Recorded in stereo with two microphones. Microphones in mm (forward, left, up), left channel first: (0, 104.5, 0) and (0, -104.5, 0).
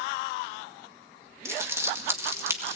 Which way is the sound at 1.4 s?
15° right (ahead or behind).